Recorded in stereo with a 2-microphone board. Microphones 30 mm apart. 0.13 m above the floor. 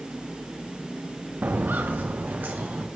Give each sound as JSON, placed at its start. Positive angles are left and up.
{"t": 1.4, "sound": "footsteps", "side_deg": -80, "distance_m": 0.5}